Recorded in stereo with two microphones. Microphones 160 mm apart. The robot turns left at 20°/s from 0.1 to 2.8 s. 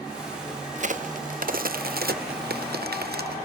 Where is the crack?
50° right (ahead or behind), 0.8 m; by 3.4 s 85° right, 0.8 m.